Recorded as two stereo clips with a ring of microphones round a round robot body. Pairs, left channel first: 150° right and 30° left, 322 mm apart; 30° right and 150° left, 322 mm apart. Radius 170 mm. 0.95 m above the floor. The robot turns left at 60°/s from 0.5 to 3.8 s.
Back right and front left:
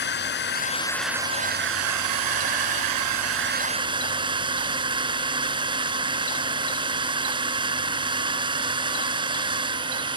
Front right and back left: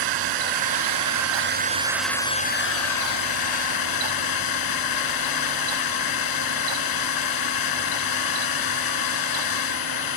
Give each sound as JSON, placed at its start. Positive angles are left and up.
{"t": 0.0, "sound": "a drone", "azimuth_deg": 150}